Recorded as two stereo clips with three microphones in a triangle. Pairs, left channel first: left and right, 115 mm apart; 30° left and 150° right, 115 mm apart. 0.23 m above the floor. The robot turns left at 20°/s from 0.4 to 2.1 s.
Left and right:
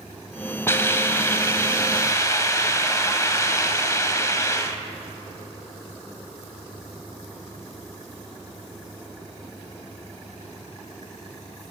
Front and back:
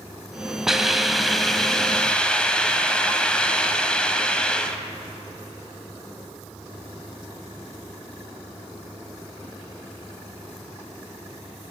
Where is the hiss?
130° left, 0.6 m; by 4.8 s 100° left, 0.6 m.